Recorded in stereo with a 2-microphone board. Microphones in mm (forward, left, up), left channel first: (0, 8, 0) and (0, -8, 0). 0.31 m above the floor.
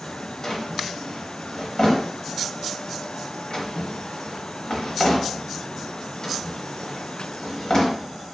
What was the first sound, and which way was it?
A drawer, 50° left (ahead or behind).